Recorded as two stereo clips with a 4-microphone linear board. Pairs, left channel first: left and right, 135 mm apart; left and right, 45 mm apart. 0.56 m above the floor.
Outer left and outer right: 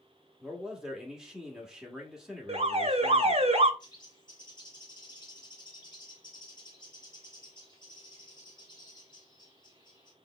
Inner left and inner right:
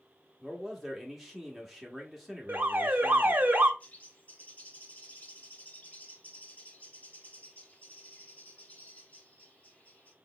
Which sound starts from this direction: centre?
A man speaking, at 0.4 s.